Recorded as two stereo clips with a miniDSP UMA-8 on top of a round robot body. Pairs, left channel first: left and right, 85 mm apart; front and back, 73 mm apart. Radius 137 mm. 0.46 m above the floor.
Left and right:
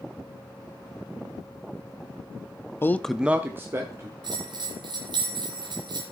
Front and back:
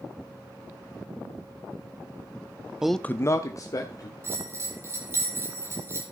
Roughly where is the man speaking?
Left.